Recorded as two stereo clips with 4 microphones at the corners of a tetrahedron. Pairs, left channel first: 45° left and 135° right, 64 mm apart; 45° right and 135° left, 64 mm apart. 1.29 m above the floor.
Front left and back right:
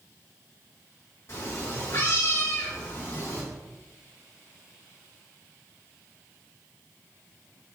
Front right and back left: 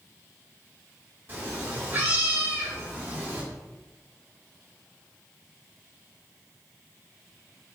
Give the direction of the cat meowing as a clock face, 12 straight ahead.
9 o'clock.